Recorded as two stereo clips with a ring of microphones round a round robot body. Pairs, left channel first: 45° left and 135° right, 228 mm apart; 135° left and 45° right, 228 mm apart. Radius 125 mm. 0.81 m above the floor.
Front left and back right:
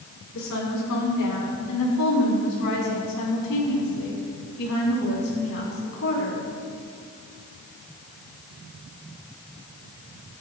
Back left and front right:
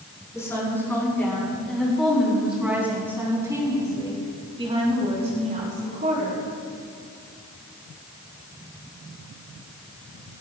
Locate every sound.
0.3 s a woman speaking: 55° left, 7 m; by 6.5 s 5° left, 6.5 m